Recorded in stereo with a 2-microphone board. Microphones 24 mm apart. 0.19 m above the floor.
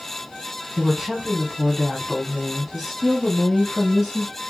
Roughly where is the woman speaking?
Centre.